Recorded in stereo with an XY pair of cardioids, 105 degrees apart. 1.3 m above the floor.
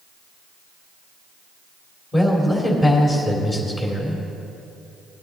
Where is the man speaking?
30° left, 3.5 m.